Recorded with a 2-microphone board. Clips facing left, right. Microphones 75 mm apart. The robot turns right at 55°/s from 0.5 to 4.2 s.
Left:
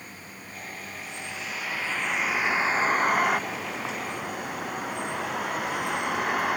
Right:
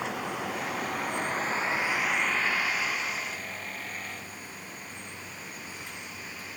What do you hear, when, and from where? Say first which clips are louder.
0.0 s a vehicle: right 12 dB; 90° right; by 6.6 s 115° left